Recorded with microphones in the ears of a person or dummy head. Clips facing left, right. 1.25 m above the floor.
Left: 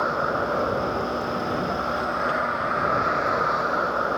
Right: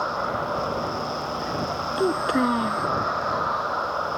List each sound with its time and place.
0.0 s a vehicle: 40° left (ahead or behind)
2.0 s a child speaking: 65° right (ahead or behind)